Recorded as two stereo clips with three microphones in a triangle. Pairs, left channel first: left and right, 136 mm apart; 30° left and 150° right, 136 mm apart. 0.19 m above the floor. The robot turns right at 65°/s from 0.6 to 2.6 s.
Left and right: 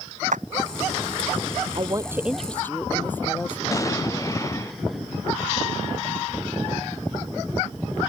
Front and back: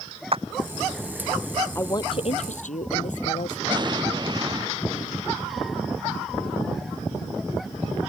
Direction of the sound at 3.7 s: 155° left.